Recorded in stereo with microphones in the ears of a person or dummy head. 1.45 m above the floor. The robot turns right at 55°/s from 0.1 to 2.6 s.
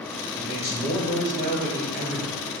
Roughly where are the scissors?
I don't hear scissors.